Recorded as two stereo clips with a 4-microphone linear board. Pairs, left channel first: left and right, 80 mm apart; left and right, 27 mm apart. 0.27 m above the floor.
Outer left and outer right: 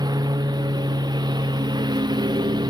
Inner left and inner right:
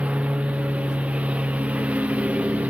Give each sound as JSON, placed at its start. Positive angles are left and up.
{"t": 0.0, "sound": "a lawn mower", "side_deg": -60}